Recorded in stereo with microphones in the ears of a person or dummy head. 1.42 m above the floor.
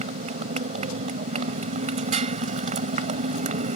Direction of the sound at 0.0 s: 45° right (ahead or behind).